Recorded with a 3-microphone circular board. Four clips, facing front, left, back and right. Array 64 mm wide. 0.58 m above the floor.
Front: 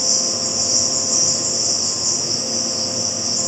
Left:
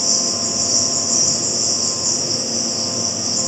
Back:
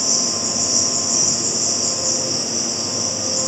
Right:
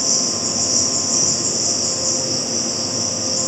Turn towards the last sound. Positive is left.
turn(degrees=-135)